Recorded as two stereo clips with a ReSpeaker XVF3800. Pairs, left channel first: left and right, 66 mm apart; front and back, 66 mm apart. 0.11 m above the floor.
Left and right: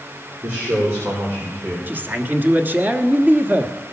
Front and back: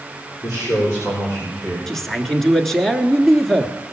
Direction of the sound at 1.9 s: 80° right.